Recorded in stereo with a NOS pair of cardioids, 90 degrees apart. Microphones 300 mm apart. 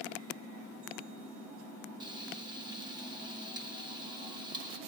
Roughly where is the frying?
Ahead.